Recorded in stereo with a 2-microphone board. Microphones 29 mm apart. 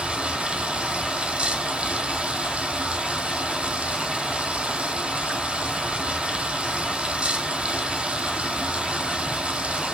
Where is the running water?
40° right (ahead or behind), 1.7 m.